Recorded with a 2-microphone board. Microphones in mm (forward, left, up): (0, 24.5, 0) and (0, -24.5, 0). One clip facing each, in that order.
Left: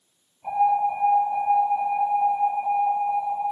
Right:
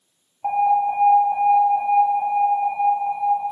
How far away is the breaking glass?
No breaking glass in this recording.